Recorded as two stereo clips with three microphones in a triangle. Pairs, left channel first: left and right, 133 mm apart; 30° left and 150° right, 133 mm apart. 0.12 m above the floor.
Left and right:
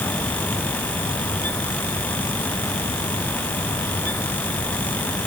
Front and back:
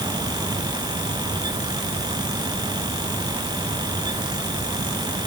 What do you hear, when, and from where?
Only background noise.